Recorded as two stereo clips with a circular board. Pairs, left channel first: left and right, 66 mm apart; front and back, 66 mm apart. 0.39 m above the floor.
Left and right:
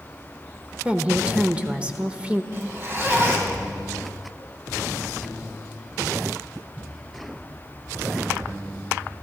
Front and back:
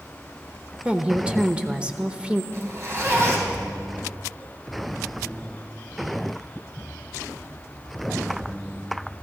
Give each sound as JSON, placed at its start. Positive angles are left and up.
{"t": 0.8, "sound": "a woman speaking", "azimuth_deg": -130, "distance_m": 0.8}
{"t": 2.5, "sound": "a zipper", "azimuth_deg": -140, "distance_m": 3.5}